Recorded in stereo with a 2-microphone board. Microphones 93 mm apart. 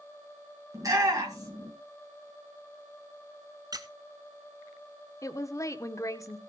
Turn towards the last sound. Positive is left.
turn(degrees=35)  # may be behind; listen again after turning